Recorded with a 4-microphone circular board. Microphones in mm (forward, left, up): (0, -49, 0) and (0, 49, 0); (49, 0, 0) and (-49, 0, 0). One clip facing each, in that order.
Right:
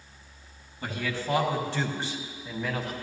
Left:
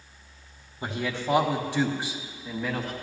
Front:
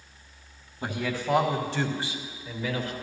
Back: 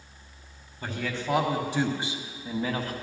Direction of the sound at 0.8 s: 55° left.